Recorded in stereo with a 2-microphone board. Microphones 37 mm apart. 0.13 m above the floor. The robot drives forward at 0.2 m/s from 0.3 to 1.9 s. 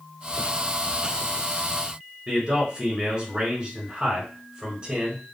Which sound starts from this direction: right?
A man speaking, at 2.3 s.